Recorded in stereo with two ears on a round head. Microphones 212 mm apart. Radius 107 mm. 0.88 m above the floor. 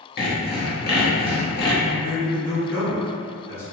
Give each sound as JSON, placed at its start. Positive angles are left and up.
{"t": 0.2, "sound": "sawing", "side_deg": 45, "distance_m": 0.8}
{"t": 1.8, "sound": "a man speaking", "side_deg": 10, "distance_m": 1.8}